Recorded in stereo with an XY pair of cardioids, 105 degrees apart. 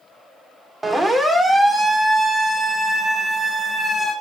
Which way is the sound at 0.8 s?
20° right.